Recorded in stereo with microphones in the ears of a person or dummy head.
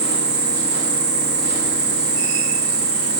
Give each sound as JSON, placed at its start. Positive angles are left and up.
{"t": 0.0, "sound": "an insect", "side_deg": -15, "distance_m": 2.5}